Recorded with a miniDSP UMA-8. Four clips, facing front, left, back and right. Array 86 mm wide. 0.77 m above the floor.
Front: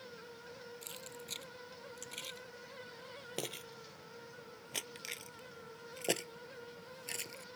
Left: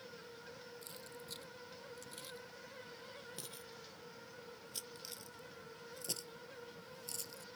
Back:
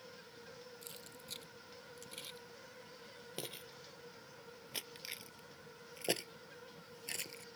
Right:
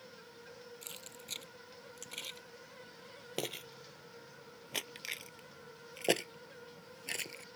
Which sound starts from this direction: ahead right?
Keys jangling, at 0.8 s.